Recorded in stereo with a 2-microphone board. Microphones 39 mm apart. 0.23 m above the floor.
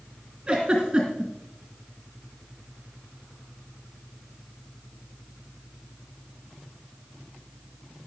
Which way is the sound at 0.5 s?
20° right (ahead or behind).